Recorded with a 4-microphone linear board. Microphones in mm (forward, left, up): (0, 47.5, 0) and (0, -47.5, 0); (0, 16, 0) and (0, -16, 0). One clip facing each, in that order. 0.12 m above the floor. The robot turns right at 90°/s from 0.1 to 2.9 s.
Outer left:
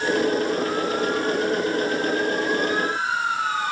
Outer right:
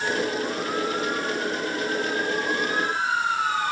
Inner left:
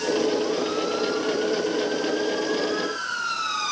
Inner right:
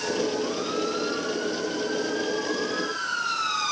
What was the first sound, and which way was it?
Only background noise.